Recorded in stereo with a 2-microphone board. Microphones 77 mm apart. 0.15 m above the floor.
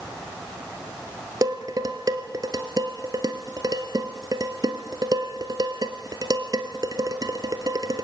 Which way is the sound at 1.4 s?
50° right (ahead or behind).